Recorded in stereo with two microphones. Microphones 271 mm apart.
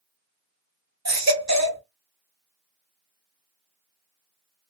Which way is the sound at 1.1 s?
70° right (ahead or behind).